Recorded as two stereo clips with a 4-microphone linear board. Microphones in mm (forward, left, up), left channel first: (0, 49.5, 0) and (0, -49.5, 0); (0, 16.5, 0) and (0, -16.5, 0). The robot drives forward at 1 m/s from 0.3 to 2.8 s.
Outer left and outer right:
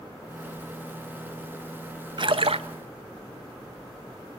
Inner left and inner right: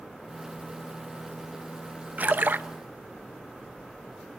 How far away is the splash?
About 0.8 m.